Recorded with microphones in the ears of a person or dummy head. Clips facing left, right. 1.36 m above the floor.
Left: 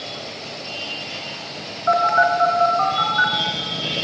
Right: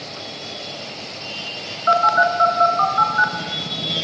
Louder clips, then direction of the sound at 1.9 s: Left 1 dB; 50° right (ahead or behind).